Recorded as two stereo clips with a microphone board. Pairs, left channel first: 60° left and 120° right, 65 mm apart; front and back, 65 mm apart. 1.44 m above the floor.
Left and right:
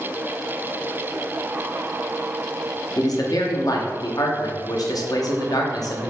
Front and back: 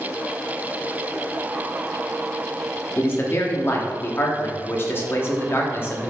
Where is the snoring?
I don't hear snoring.